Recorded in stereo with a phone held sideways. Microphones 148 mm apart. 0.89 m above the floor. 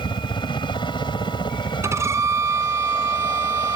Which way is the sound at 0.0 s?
30° left (ahead or behind).